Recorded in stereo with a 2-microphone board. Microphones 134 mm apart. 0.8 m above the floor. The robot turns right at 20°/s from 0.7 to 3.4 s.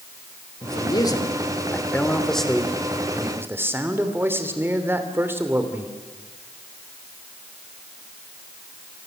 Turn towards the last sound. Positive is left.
turn(degrees=-165)